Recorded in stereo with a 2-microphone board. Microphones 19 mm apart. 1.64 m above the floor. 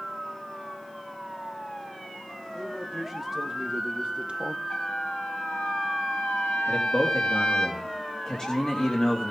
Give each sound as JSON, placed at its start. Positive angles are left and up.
{"t": 2.5, "sound": "a man speaking", "side_deg": -10, "distance_m": 3.5}
{"t": 4.7, "sound": "a trumpet", "side_deg": 50, "distance_m": 9.0}
{"t": 6.7, "sound": "a man speaking", "side_deg": 30, "distance_m": 3.0}